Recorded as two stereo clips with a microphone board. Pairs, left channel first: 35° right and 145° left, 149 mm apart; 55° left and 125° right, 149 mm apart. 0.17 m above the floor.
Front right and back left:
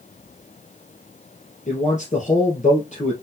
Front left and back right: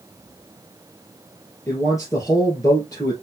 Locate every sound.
1.7 s a man speaking: 10° right, 2.5 m